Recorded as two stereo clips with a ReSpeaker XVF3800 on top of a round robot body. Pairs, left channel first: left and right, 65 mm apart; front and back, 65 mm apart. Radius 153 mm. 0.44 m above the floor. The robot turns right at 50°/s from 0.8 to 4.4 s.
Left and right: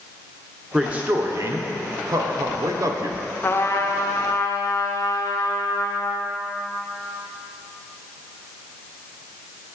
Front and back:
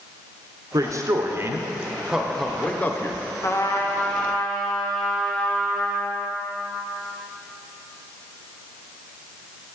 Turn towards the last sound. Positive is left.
turn(degrees=85)